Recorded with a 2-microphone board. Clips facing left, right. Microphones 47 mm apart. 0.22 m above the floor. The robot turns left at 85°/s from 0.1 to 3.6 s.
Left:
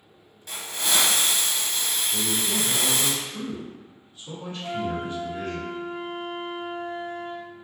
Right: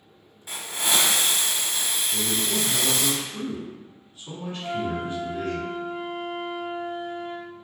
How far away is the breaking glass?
I don't hear breaking glass.